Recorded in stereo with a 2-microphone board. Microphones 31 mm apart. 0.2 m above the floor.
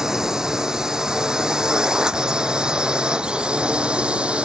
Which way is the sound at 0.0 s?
15° right (ahead or behind).